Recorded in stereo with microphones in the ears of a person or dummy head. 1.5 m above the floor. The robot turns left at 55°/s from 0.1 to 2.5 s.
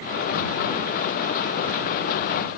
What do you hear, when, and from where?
Only background noise.